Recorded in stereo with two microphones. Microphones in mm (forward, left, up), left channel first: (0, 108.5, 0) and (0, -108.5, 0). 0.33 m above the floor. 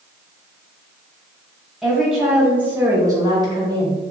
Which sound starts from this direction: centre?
A woman speaking, at 1.8 s.